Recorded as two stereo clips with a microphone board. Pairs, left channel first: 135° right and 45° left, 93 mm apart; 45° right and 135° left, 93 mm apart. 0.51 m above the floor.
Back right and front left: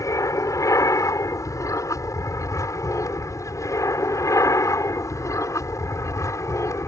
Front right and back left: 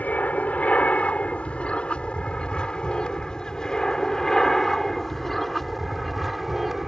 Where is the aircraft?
110° right; by 6.9 s 140° right.